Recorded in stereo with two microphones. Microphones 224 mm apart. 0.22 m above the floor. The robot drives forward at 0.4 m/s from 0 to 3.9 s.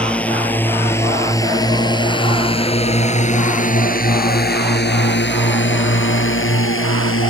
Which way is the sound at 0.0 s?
5° left (ahead or behind).